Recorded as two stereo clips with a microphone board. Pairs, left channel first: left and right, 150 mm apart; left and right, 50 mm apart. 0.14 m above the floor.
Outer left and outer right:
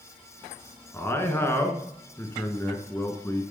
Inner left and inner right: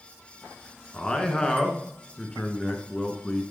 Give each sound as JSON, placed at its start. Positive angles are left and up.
{"t": 0.9, "sound": "a man speaking", "side_deg": 15, "distance_m": 1.5}